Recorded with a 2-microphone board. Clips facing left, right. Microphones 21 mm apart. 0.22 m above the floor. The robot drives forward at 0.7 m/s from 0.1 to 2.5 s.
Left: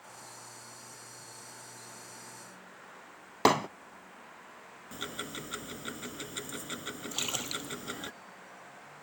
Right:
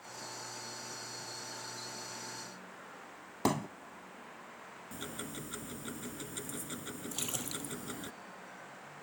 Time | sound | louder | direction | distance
3.5 | hammering | left 8 dB | 50° left (ahead or behind) | ?
4.9 | ticking | left 5 dB | 35° left (ahead or behind) | ?
7.1 | a splash | left 6 dB | 30° left (ahead or behind) | ?